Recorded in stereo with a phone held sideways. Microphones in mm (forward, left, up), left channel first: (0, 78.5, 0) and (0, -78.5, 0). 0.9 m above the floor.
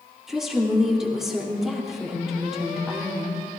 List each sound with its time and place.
0.3 s a woman speaking: 5° right (ahead or behind), 3 m